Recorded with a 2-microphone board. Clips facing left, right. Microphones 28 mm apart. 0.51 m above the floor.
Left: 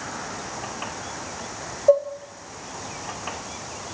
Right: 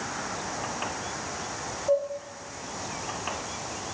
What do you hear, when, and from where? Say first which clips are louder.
1.9 s dishes clattering: left 7 dB; 65° left (ahead or behind), 1.5 m